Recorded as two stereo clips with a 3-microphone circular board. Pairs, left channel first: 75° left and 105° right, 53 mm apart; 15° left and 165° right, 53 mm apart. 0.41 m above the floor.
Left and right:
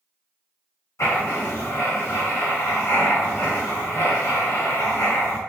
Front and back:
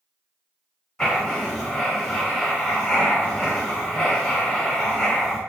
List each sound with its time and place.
1.0 s writing: 95° left, 1.5 m